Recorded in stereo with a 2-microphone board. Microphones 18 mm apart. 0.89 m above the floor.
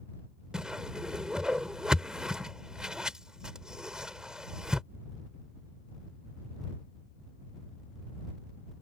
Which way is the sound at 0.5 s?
45° right (ahead or behind).